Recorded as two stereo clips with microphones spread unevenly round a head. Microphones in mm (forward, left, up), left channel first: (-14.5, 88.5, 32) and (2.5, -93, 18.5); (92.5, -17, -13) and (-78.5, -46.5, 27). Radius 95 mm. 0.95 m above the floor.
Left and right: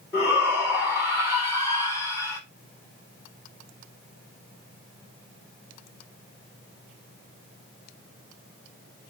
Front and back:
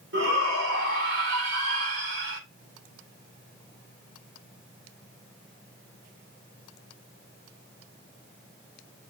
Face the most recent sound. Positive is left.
turn(degrees=170)